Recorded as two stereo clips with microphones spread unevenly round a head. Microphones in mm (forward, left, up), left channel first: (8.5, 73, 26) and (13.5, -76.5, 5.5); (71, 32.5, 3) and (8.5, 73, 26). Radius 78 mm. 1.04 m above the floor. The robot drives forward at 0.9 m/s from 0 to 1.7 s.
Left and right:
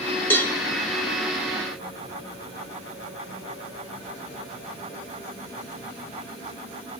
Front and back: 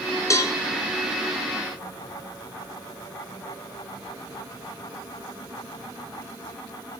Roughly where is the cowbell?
Ahead.